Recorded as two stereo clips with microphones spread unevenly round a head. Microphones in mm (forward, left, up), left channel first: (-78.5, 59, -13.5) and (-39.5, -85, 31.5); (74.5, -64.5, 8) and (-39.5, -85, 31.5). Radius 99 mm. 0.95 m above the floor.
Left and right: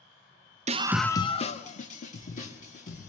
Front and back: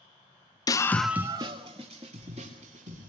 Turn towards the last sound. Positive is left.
turn(degrees=135)